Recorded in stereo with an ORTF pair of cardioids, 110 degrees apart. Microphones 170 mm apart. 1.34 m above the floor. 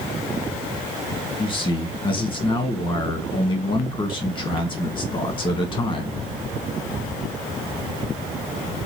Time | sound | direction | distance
1.4 | a man speaking | 30° left | 1.3 m